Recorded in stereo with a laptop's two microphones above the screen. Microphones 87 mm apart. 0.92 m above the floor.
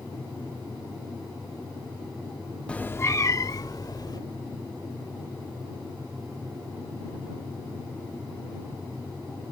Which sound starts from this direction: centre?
A cat meowing, at 2.7 s.